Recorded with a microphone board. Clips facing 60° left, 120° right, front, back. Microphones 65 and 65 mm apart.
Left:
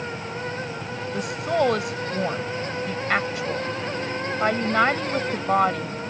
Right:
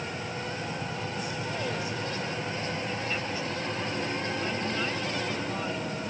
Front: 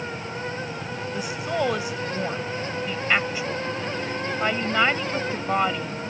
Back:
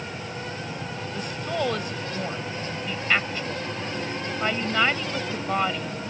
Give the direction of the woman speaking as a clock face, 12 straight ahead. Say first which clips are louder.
Left 10 dB, front 2 dB; 9 o'clock.